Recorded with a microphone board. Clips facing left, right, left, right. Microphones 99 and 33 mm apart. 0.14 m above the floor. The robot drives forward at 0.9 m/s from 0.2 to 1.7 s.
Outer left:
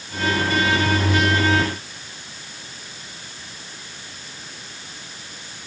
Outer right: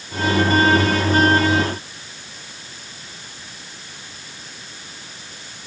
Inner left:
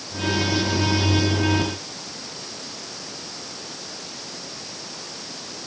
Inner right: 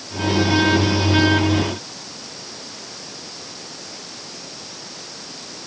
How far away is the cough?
I don't hear a cough.